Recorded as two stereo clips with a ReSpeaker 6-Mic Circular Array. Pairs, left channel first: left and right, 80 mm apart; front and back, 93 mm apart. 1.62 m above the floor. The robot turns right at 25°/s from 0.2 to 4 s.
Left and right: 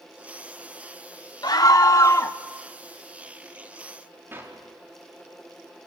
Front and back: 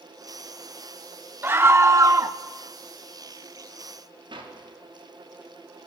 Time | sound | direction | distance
1.4 | a scream | 115° left | 0.7 m
4.3 | a clap | 150° right | 3.5 m